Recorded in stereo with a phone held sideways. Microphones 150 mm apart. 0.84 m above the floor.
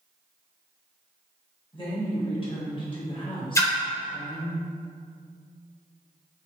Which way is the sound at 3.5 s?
20° left (ahead or behind).